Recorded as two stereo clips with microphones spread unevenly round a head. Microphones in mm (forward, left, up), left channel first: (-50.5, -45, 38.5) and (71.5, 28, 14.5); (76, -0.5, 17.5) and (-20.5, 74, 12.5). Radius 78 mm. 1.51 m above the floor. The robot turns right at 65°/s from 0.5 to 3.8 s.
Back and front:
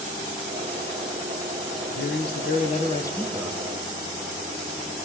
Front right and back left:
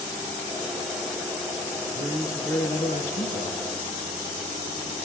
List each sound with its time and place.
1.9 s a man speaking: 155° right, 1.2 m; by 3.6 s 50° right, 1.2 m